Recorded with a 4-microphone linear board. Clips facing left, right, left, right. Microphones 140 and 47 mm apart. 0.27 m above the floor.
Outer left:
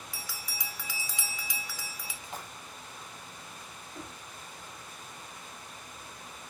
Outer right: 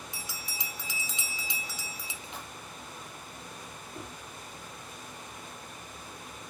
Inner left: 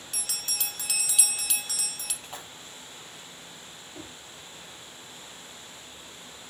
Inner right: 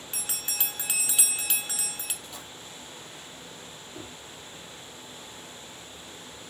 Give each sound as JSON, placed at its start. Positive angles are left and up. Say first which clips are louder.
{"t": 0.1, "sound": "a bell", "louder": "outer right 1 dB, even", "side_deg": -20, "distance_m": 0.7}
{"t": 2.2, "sound": "a splash", "louder": "outer left 3 dB, inner left 1 dB", "side_deg": 40, "distance_m": 0.8}
{"t": 3.9, "sound": "knocking", "louder": "outer right 1 dB, inner right 1 dB", "side_deg": -10, "distance_m": 2.5}